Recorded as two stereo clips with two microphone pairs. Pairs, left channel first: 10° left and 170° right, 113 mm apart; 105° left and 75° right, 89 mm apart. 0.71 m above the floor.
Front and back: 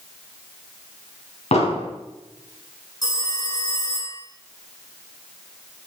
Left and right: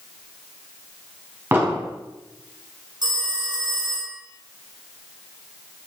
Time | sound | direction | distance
1.5 | an explosion | 10° right | 3 m
3.0 | a phone ringing | 45° right | 2.0 m